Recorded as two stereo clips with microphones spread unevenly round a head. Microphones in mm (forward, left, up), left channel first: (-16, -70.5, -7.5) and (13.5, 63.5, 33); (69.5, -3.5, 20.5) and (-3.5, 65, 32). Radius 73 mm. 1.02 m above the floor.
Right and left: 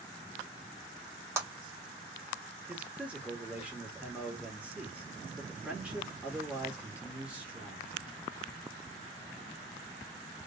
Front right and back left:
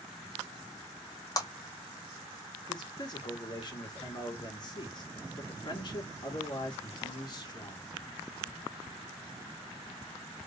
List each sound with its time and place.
1.4 s a clap: 5° left, 1.7 m
2.7 s a man speaking: 10° right, 2.5 m